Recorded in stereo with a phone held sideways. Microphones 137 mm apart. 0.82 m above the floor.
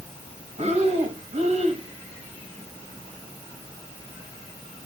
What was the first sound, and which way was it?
Breathing, 50° right (ahead or behind).